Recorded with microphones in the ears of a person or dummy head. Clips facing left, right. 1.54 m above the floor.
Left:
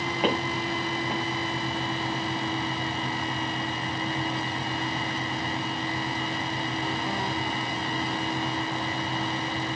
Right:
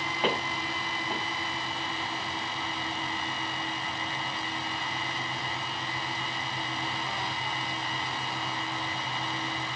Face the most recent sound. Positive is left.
turn(degrees=10)  # may be behind; listen again after turning